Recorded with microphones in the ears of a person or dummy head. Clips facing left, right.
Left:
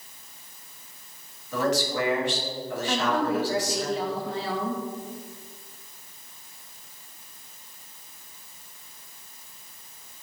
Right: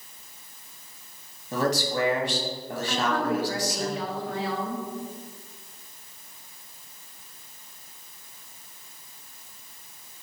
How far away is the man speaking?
About 1.8 m.